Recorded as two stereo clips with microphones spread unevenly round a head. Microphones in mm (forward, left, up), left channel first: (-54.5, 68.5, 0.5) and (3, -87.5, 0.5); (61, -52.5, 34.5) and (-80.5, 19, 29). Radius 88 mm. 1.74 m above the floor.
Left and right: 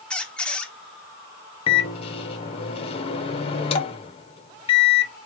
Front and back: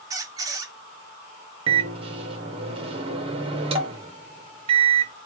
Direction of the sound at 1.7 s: 120° left.